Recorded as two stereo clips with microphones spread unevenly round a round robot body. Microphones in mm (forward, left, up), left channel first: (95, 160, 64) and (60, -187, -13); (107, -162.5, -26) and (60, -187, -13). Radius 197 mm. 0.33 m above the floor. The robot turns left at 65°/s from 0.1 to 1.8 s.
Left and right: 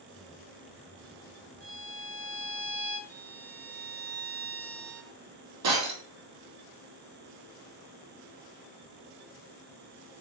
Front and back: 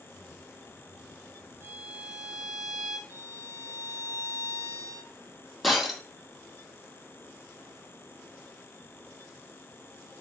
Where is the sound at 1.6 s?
150° right, 1.1 m; by 3.0 s 160° right, 1.1 m.